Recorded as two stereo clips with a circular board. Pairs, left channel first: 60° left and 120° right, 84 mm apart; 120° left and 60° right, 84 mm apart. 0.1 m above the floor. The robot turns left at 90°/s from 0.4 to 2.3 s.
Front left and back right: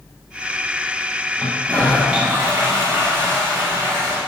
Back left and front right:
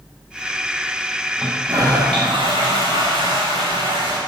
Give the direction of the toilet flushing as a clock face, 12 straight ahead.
11 o'clock.